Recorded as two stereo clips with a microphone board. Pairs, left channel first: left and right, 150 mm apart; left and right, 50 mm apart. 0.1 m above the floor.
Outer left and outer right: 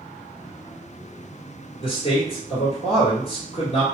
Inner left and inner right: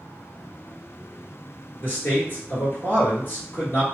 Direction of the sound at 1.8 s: 40° left (ahead or behind).